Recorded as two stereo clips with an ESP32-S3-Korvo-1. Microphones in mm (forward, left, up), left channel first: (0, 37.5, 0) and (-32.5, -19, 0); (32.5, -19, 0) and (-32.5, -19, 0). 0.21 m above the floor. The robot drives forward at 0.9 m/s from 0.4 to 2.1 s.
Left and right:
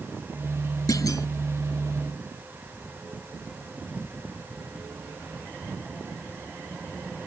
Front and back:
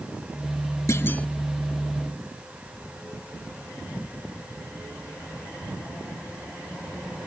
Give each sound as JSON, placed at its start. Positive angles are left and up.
{"t": 0.9, "sound": "a clunk", "azimuth_deg": 40}